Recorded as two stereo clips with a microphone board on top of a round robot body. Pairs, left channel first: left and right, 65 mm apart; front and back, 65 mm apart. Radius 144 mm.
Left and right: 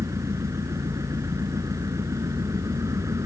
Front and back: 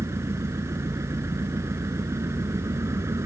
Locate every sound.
0.0 s an engine running: 135° right